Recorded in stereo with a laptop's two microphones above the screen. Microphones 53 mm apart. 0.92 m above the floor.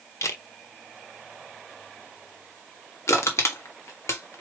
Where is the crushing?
70° left (ahead or behind), 1.3 m.